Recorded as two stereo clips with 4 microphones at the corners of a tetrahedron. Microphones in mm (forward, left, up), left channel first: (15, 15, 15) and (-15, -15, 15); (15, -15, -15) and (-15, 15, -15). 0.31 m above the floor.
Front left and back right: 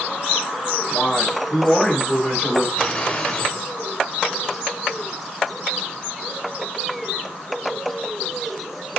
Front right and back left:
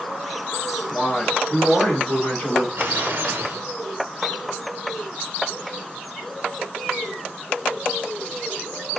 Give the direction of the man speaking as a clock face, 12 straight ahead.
12 o'clock.